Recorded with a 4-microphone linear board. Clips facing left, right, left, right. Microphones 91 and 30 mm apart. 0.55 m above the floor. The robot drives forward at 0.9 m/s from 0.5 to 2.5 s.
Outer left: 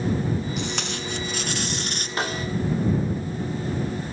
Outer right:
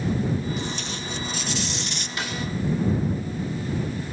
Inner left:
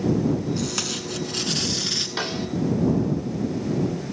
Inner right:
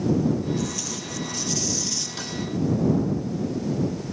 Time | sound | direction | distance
0.6 | tape being pulled | 80° left | 1.9 m
2.2 | a snare drum | 45° left (ahead or behind) | 1.3 m